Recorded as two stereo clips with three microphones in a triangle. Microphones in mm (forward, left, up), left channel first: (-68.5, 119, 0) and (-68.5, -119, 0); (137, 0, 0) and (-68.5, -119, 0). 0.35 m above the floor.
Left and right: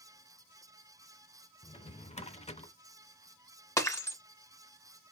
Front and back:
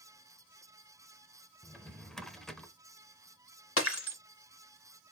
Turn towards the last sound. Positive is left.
turn(degrees=15)